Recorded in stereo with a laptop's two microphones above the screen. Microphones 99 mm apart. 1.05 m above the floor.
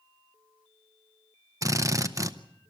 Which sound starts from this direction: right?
A drill, at 1.6 s.